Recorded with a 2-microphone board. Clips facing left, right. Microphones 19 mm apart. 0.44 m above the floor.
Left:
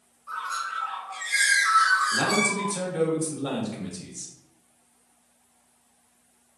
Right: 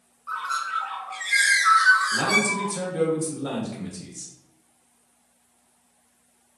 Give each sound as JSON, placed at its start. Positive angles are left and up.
{"t": 0.3, "sound": "a bird", "side_deg": -30, "distance_m": 0.7}
{"t": 2.1, "sound": "a man speaking", "side_deg": 10, "distance_m": 1.0}